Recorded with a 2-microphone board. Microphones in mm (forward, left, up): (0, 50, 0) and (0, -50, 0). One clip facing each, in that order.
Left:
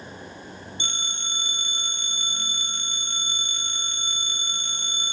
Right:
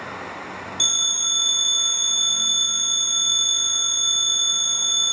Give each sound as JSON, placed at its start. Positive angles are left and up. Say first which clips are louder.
{"t": 0.8, "sound": "a phone ringing", "louder": "right 2 dB", "side_deg": -20, "distance_m": 2.5}